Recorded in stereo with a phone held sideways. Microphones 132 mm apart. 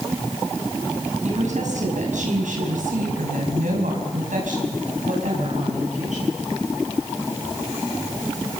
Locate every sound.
1.2 s a woman speaking: 65° right (ahead or behind), 6.5 m